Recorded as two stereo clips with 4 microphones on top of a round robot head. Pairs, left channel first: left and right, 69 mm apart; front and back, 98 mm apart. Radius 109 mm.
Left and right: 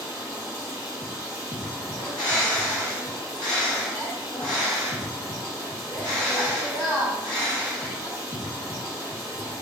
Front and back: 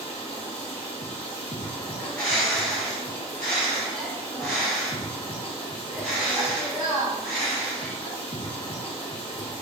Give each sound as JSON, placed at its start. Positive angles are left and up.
{"t": 0.0, "sound": "running water", "azimuth_deg": -35, "distance_m": 1.7}
{"t": 2.0, "sound": "a bird", "azimuth_deg": 80, "distance_m": 2.0}